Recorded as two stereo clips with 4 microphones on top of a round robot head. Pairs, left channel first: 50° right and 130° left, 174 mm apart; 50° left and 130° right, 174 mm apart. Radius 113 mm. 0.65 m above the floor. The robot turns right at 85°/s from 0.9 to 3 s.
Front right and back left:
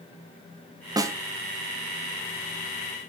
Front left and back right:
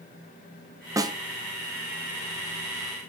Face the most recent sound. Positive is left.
turn(degrees=-10)